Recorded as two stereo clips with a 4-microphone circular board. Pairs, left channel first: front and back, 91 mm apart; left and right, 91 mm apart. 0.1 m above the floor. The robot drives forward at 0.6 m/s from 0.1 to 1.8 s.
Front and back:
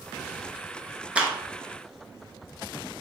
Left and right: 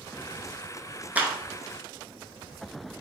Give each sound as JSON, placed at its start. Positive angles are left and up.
{"t": 1.1, "sound": "a clap", "azimuth_deg": -125, "distance_m": 1.0}